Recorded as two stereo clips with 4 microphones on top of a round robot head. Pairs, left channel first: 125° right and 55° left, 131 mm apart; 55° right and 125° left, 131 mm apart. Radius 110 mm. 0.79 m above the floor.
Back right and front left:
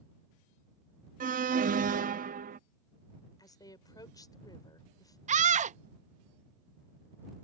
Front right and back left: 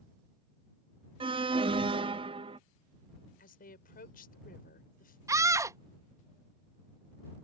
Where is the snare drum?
No snare drum in this recording.